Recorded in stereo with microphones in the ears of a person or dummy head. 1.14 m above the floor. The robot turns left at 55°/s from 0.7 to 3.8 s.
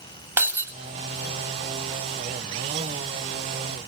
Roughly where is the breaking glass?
Centre.